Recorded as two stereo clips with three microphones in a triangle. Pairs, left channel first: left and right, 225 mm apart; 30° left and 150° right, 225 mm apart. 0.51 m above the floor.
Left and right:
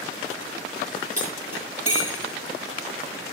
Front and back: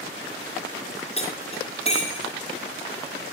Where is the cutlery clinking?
95° left, 8.5 m.